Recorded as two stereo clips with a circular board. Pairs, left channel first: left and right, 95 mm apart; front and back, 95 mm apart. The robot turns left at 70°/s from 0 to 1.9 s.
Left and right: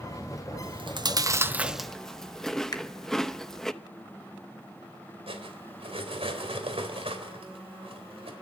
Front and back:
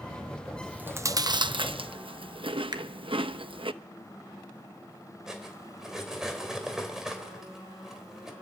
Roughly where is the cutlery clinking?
Right.